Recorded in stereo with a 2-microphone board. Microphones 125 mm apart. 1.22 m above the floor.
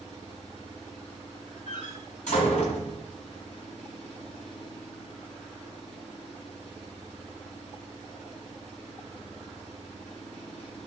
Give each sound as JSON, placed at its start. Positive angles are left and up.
{"t": 0.0, "sound": "an engine running", "side_deg": 70, "distance_m": 5.5}
{"t": 1.7, "sound": "a door slam", "side_deg": 75, "distance_m": 5.0}